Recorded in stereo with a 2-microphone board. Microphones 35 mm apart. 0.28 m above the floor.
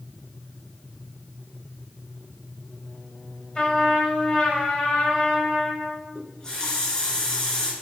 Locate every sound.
3.5 s a trumpet: 30° left (ahead or behind), 1.5 m
6.2 s a running tap: 20° left (ahead or behind), 2 m